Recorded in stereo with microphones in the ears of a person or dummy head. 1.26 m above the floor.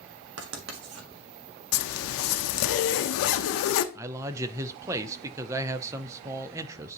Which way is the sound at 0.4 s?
90° right.